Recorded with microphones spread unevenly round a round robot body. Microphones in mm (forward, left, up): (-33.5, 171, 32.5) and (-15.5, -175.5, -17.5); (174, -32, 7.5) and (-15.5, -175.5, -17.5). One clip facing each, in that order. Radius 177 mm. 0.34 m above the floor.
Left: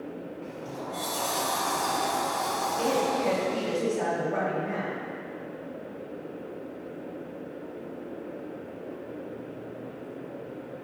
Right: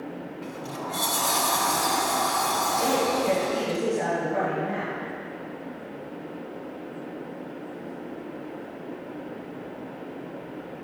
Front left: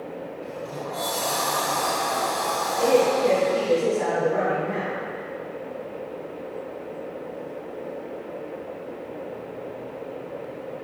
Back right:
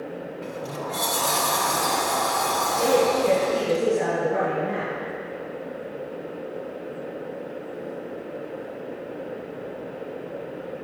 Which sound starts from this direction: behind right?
A sliding door, at 0.4 s.